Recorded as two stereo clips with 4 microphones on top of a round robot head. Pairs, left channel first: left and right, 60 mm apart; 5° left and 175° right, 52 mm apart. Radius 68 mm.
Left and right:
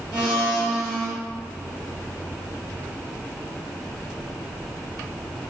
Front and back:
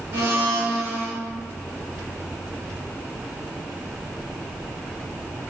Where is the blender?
165° right, 1.9 m.